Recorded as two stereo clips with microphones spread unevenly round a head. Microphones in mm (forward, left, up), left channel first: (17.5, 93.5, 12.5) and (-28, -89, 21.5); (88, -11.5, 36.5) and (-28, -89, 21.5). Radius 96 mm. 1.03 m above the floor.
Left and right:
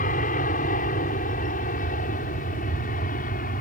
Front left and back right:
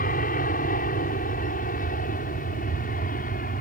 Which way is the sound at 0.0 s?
30° left.